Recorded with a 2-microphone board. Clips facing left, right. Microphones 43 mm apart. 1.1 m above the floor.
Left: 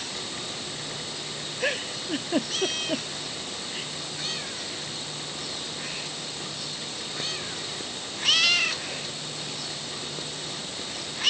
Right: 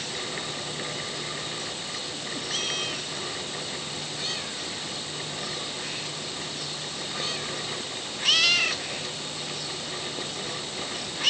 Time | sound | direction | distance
1.6 | a giggle | 75° left (ahead or behind) | ?